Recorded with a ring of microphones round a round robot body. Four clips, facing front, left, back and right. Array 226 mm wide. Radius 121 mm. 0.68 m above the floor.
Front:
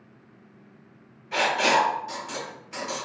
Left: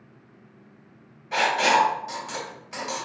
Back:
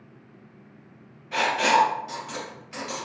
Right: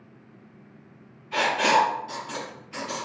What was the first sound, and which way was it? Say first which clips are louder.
Writing: left 1 dB, back 1 dB; 90° left.